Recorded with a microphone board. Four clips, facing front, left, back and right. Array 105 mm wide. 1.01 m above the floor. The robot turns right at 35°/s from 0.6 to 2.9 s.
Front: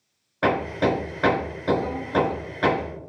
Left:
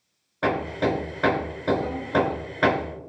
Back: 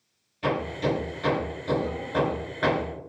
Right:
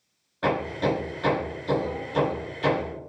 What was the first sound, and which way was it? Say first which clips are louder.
Hammering: left 1 dB, front 5 dB; 20° left.